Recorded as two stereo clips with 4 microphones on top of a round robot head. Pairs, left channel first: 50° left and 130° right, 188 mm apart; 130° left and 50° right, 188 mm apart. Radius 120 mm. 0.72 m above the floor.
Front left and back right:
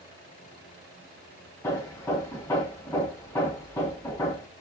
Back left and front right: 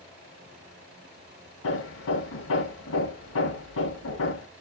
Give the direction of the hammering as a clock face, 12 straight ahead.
8 o'clock.